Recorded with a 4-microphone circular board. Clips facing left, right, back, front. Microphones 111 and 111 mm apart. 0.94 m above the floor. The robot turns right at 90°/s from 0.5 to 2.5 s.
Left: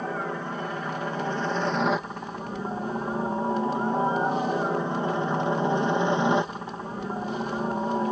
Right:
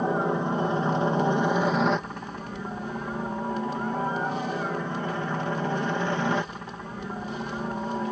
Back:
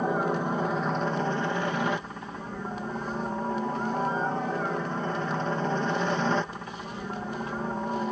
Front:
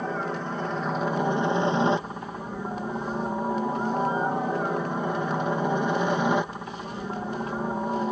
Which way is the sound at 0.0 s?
120° right.